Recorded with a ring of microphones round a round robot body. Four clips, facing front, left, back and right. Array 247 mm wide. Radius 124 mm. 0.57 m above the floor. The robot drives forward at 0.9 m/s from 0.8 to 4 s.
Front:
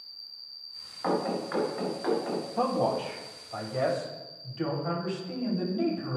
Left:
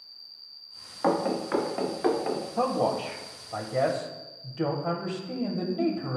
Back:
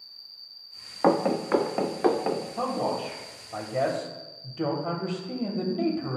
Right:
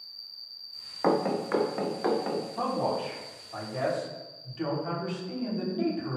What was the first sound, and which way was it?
An insect, 115° right.